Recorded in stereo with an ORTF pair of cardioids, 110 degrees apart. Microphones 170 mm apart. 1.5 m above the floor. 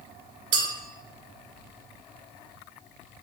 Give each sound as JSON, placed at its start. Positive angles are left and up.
{"t": 0.5, "sound": "a clink", "azimuth_deg": -55, "distance_m": 2.0}